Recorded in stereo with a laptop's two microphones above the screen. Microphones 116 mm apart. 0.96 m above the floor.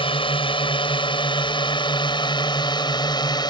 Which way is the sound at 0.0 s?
50° left (ahead or behind).